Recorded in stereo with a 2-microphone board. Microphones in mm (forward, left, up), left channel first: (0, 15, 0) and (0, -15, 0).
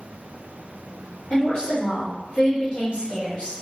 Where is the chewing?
No chewing in this recording.